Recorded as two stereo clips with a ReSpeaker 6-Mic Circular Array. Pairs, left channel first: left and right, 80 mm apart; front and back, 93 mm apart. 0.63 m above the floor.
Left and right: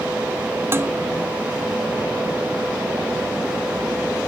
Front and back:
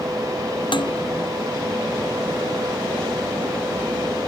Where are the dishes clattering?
30° right.